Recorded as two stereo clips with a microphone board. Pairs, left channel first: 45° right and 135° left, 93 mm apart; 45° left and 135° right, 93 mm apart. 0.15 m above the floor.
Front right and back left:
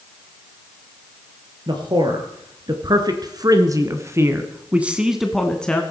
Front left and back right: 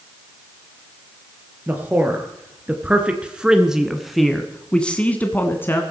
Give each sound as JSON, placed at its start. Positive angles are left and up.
{"t": 1.7, "sound": "a man speaking", "azimuth_deg": 155, "distance_m": 3.0}